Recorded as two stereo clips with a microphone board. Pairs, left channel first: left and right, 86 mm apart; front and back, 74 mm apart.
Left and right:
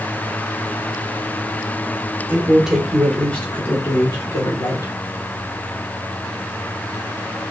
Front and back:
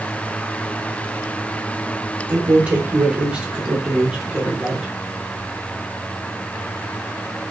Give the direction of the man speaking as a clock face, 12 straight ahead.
5 o'clock.